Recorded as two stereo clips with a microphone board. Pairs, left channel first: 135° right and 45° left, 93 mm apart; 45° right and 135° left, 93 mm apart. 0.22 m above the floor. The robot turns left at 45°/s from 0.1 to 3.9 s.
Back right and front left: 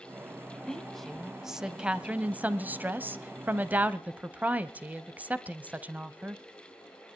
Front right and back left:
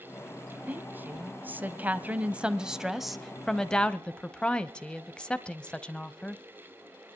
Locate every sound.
0.7 s a woman speaking: 160° left, 0.9 m; by 6.4 s 10° left, 0.9 m